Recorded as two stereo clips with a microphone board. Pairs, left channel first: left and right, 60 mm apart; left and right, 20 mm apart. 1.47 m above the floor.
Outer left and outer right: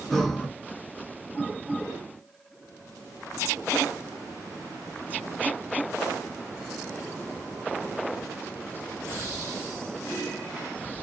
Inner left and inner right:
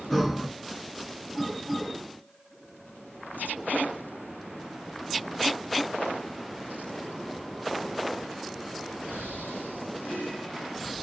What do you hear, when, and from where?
0.1 s breathing: 5° left (ahead or behind), 0.8 m